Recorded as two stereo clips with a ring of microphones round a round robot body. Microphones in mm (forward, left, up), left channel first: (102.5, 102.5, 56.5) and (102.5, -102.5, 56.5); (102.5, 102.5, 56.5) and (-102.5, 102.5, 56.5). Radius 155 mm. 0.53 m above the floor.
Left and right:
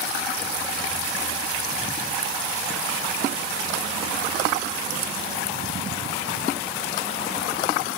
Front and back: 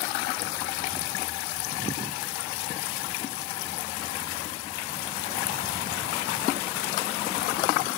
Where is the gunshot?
I don't hear a gunshot.